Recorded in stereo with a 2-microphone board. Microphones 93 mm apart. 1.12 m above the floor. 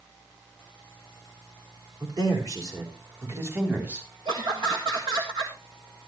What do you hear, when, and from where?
2.0 s a man speaking: 45° right (ahead or behind), 3.5 m; by 4.1 s 15° right (ahead or behind), 3 m
4.2 s laughter: 55° right (ahead or behind), 1.6 m